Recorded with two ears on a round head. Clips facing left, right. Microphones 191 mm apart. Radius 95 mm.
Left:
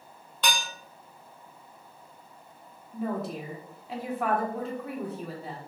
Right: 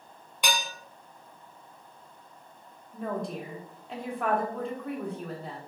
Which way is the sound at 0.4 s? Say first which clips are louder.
Even; 10° right (ahead or behind).